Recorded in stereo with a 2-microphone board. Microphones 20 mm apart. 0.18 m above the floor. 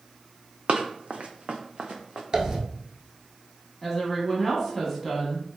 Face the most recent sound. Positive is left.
turn(degrees=10)  # may be behind; listen again after turning